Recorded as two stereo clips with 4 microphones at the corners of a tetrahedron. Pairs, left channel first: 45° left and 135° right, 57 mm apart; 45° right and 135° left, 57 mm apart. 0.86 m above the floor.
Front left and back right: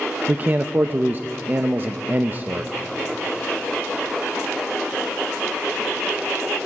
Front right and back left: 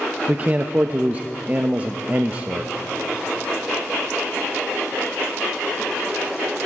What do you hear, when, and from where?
0.3 s a man speaking: 175° right, 0.5 m